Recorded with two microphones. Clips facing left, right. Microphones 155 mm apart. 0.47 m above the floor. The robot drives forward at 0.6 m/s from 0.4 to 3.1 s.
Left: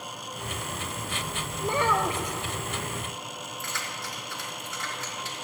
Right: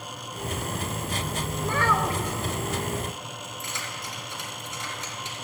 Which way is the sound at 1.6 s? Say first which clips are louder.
Left 1 dB; 20° left (ahead or behind).